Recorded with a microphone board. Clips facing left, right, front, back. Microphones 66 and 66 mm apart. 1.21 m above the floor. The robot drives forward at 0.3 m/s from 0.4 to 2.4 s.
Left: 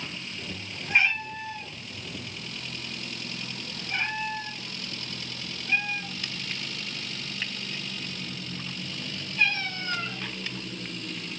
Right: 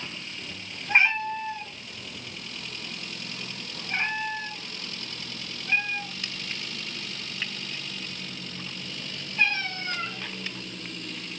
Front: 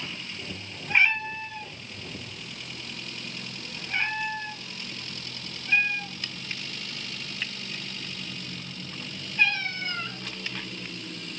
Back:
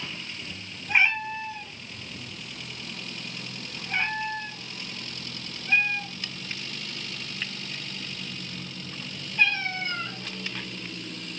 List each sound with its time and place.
0.9 s a cat meowing: 110° right, 1.3 m; by 10.2 s 130° right, 1.5 m